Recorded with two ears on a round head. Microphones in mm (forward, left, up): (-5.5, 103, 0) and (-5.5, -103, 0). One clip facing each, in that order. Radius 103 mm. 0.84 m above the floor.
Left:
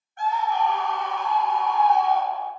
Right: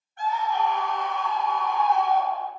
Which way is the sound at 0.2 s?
40° left (ahead or behind).